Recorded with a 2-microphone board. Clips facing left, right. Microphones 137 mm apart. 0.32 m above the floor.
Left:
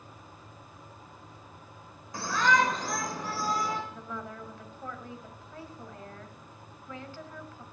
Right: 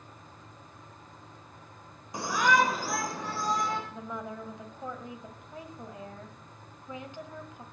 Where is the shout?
20° right (ahead or behind), 1.4 m; by 3.8 s 10° left (ahead or behind), 1.8 m.